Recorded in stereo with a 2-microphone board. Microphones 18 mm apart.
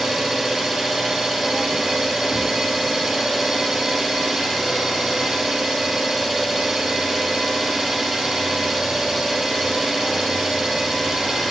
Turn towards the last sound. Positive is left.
turn(degrees=-30)  # may be behind; listen again after turning